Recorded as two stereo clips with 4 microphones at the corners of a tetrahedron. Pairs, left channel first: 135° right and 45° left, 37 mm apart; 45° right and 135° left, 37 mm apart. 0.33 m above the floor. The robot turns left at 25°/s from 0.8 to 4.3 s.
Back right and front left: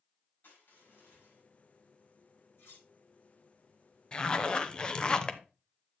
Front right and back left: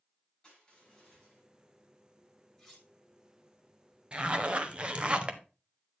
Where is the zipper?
175° left, 0.7 m; by 5.4 s 170° left, 0.7 m.